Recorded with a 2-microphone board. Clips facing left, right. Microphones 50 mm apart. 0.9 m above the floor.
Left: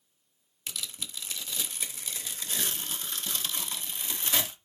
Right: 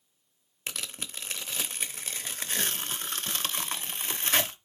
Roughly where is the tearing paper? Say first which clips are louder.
Right 2 dB; right.